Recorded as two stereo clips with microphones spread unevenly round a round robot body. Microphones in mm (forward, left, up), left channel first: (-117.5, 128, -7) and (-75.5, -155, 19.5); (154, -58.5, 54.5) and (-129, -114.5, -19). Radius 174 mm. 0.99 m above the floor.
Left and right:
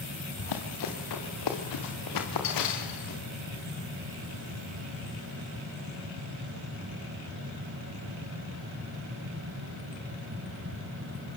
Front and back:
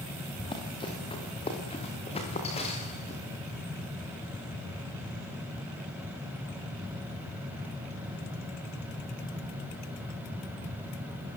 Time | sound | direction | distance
0.4 | running footsteps | 85° left | 5 m